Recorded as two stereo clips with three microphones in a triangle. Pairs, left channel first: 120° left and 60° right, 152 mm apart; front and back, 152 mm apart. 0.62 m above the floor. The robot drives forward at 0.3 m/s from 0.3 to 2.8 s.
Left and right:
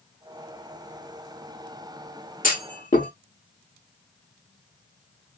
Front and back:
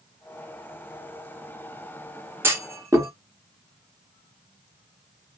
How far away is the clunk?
About 1.4 m.